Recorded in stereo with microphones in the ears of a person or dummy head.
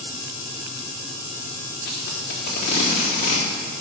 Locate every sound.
1.9 s tape being pulled: 50° left (ahead or behind), 3.5 m